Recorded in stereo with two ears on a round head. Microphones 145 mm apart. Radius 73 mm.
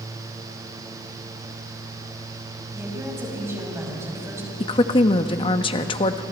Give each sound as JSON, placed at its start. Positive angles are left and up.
{"t": 2.7, "sound": "a woman speaking", "side_deg": -15, "distance_m": 5.5}
{"t": 4.6, "sound": "a woman speaking", "side_deg": 30, "distance_m": 1.0}